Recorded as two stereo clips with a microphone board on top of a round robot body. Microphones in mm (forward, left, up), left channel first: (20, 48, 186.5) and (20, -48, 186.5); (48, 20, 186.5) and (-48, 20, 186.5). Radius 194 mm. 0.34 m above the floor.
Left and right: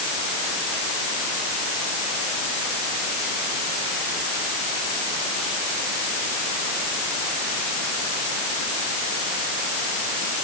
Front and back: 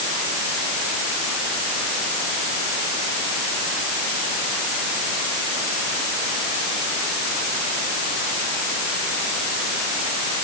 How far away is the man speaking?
No man speaking in this recording.